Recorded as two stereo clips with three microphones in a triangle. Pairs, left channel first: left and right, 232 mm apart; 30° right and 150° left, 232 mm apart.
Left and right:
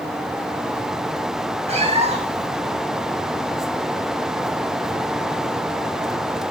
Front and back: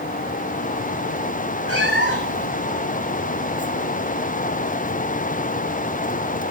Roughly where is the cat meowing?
Ahead right.